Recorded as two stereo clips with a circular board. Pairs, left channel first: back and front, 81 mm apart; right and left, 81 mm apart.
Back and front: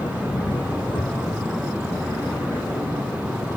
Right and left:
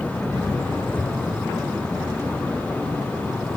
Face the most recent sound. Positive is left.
turn(degrees=-165)